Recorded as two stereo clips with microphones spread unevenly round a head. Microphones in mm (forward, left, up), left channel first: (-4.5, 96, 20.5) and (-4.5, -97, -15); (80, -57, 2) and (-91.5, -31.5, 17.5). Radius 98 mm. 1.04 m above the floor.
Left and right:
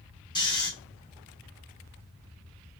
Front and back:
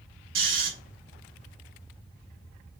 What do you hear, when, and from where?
0.3 s snoring: 155° left, 1.2 m